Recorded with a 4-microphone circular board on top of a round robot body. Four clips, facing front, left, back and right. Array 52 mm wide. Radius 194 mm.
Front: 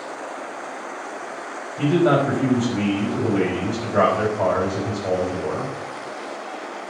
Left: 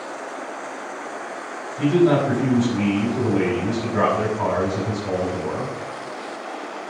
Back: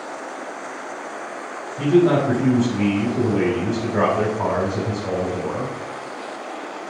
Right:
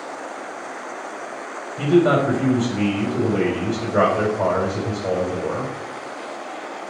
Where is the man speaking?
70° right, 4 m.